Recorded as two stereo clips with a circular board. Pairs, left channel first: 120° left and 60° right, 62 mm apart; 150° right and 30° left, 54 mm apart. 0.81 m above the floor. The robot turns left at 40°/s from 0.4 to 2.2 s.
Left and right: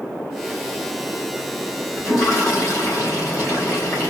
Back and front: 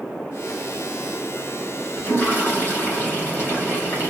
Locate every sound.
2.0 s a toilet flushing: 165° left, 2.5 m; by 4.1 s 155° left, 2.5 m